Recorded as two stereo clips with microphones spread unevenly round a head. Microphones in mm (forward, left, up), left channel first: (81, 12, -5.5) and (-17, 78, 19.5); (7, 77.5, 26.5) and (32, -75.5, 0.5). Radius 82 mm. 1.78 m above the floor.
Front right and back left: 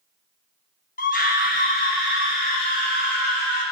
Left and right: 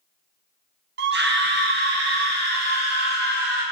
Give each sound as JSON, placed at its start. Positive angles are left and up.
{"t": 1.0, "sound": "a scream", "azimuth_deg": -65, "distance_m": 1.1}